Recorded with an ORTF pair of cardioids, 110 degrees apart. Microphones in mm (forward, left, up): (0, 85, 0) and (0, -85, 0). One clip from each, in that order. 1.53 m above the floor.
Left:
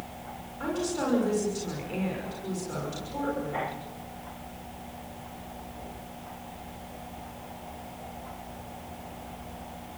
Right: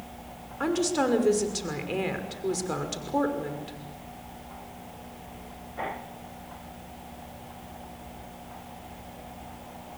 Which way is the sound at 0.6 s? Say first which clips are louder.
Right 5 dB; 55° right.